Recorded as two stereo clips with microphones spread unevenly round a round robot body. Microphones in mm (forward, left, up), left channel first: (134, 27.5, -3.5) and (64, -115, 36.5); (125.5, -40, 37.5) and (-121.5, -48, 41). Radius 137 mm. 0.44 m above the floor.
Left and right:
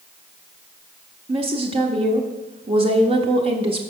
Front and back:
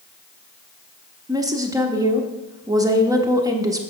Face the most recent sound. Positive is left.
turn(degrees=-130)